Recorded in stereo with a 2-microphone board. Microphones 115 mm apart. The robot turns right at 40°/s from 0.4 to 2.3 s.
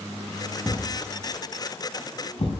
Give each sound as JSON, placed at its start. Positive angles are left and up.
{"t": 0.6, "sound": "a thud", "side_deg": -15, "distance_m": 4.0}